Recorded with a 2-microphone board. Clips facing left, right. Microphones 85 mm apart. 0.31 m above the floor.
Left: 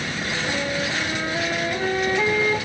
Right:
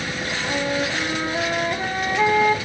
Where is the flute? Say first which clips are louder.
Right 3 dB; 15° right (ahead or behind), 1.4 m.